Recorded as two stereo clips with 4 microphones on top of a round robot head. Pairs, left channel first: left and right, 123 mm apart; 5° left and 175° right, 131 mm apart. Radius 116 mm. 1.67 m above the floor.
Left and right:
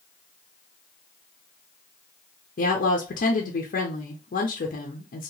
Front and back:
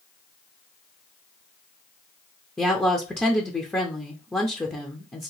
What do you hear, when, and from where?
2.6 s a woman speaking: 85° left, 0.7 m